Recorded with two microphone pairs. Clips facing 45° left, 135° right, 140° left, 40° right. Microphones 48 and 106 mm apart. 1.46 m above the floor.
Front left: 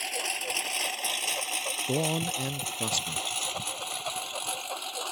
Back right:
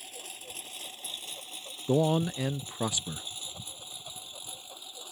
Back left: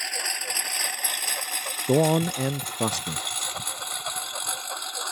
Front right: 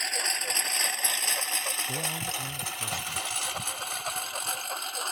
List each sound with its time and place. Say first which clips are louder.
0.0 s a lawn mower: front left 13 dB, even; 50° left; by 5.1 s 55° left
1.9 s a man speaking: back right 4 dB, back left 20 dB; 145° left